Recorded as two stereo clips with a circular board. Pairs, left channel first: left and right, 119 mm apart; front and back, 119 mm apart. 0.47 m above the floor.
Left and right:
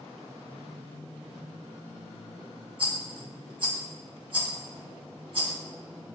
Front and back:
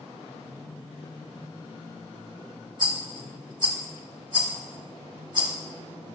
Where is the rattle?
130° right, 2.0 m.